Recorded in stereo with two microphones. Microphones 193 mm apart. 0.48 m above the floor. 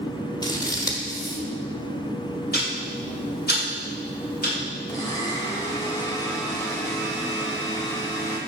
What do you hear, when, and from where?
0.4 s scissors: 20° left (ahead or behind), 1.4 m
2.5 s ticking: 60° left (ahead or behind), 2.5 m
4.9 s a blender: 20° left (ahead or behind), 1.4 m